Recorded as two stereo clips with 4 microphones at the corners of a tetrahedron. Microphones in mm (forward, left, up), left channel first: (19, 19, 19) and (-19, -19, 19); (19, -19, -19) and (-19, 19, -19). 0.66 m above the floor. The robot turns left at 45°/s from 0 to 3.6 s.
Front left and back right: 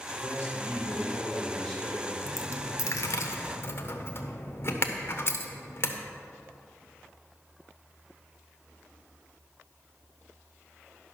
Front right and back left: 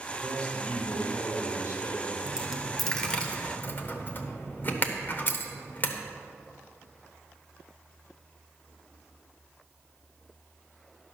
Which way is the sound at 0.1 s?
35° left.